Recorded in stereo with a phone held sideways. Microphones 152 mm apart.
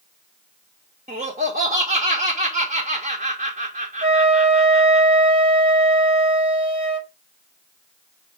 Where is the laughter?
65° right (ahead or behind), 1.4 m.